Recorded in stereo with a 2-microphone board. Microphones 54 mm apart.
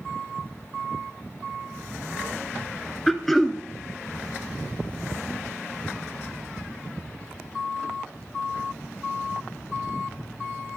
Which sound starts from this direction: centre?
Throat clearing, at 3.1 s.